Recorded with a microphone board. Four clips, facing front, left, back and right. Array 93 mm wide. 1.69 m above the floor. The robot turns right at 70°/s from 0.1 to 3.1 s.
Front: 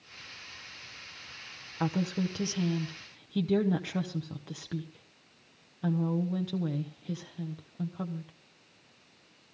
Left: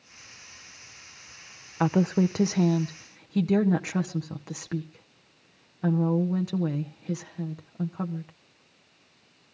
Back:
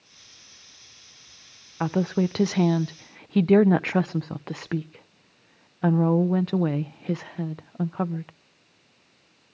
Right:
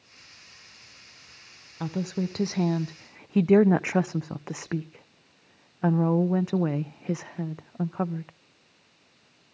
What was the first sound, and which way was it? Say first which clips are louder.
A woman speaking: left 7 dB, back 7 dB; 120° left.